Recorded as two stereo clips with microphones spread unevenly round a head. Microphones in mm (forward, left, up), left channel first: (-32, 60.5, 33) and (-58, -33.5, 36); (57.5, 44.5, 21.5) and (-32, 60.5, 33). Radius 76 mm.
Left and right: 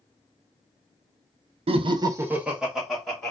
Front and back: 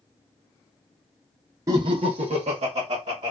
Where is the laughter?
125° right, 0.6 m; by 3.3 s 155° left, 1.3 m.